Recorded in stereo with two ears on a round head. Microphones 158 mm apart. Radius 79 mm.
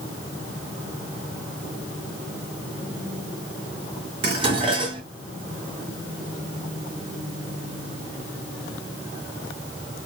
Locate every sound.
4.2 s dishes clattering: 30° right (ahead or behind), 1.8 m